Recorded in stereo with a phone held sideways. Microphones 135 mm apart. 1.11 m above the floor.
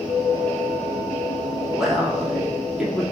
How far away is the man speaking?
About 2.5 m.